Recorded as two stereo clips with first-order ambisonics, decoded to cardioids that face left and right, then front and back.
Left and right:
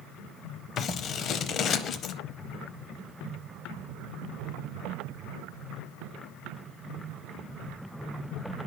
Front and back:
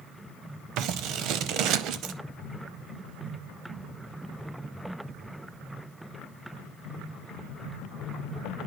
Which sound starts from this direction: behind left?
Scissors, at 0.8 s.